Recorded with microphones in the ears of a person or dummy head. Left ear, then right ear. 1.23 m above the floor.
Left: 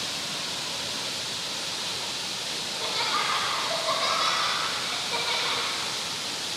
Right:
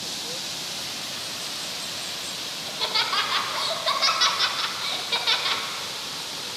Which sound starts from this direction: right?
Laughter, at 2.6 s.